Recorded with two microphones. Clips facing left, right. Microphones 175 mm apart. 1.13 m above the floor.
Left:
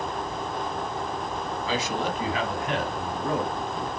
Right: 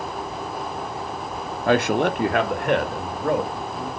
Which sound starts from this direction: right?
A man speaking, at 1.7 s.